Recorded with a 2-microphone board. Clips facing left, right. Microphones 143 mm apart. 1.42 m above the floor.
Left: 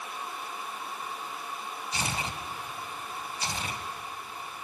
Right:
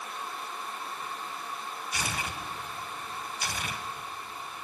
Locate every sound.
1.9 s tearing paper: 25° left (ahead or behind), 1.4 m